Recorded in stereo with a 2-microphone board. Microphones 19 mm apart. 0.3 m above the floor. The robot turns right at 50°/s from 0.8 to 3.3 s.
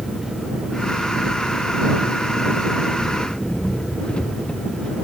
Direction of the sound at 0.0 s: 10° right.